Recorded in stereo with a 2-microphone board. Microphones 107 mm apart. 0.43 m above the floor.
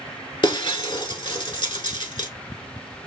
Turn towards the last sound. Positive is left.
turn(degrees=45)  # may be behind; listen again after turning